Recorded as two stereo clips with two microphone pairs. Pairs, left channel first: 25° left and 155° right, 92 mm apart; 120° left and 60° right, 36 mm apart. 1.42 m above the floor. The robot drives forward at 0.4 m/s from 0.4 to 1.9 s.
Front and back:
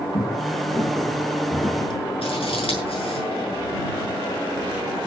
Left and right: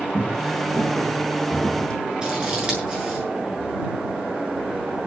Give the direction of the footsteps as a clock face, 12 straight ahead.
11 o'clock.